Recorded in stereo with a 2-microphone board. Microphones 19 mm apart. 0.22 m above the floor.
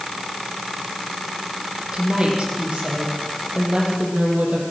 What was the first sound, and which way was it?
A woman speaking, 70° right (ahead or behind).